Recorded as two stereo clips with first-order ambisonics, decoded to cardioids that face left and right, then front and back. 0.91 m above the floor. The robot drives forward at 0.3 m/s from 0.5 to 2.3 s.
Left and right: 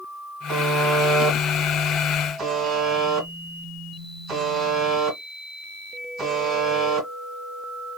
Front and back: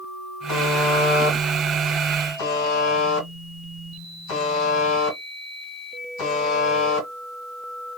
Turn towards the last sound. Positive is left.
turn(degrees=-20)